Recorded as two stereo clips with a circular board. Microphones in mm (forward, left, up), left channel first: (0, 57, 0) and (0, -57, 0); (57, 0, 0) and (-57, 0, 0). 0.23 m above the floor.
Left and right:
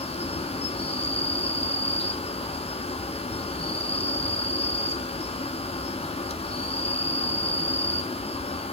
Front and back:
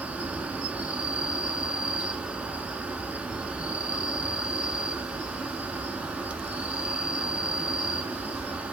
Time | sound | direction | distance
0.0 | an insect | 100° left | 1.1 m